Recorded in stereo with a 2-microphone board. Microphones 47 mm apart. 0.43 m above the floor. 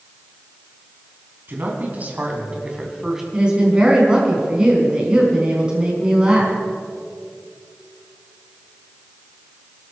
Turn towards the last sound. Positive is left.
turn(degrees=-20)  # may be behind; listen again after turning